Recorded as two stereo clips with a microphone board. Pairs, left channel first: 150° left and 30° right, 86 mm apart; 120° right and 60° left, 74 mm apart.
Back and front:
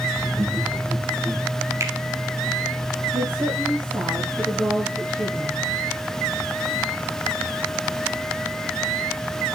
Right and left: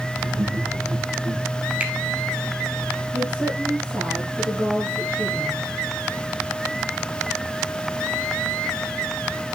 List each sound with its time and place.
0.2 s laughter: 25° left, 6 m; by 1.4 s 40° left, 7.5 m
1.8 s a finger snap: 5° right, 1.5 m
3.1 s a woman speaking: 15° left, 4.5 m